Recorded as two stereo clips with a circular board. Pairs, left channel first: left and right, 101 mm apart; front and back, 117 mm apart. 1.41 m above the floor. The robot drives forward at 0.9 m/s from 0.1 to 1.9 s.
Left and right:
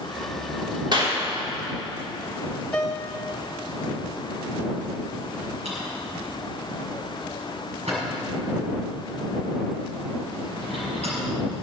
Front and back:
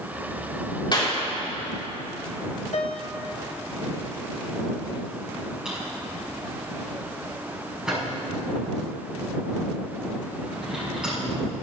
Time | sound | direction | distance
0.9 | a clap | 50° right | 3.5 m
2.7 | a piano | 10° left | 1.4 m
5.7 | a drawer | 95° right | 5.5 m